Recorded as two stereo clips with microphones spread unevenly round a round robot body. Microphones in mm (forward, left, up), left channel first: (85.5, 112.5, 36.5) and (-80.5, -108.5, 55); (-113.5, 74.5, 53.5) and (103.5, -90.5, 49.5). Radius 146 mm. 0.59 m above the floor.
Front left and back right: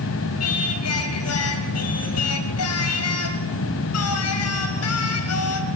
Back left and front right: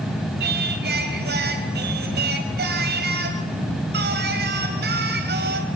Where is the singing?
20° left, 2.5 m.